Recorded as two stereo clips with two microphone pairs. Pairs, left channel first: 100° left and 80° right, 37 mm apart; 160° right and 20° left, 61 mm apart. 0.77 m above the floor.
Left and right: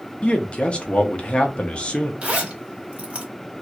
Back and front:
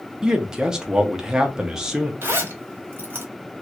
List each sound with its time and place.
0.2 s a man speaking: 85° left, 0.7 m
2.2 s a zipper: 30° right, 1.1 m